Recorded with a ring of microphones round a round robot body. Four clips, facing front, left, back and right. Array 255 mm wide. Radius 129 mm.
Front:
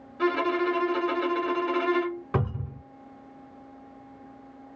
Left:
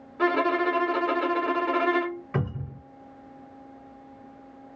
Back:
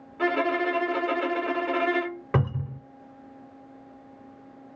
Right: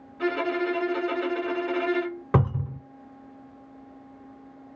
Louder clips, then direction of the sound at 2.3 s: Right 6 dB, back 6 dB; 105° right.